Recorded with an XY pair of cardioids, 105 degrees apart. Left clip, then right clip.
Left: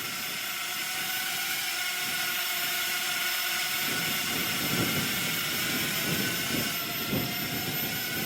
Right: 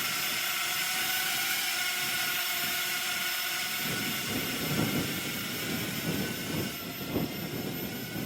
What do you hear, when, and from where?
0.0 s a drone: 15° right; by 8.3 s 60° left